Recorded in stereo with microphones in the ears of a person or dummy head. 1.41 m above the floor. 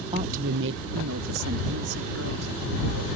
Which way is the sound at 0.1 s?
25° right (ahead or behind).